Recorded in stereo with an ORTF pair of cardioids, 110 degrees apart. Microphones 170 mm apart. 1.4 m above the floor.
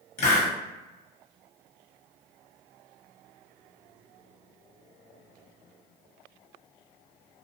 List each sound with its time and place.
0.2 s a hiss: 40° left, 0.9 m